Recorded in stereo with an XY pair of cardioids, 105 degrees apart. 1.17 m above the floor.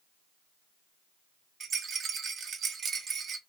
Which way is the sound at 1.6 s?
50° right.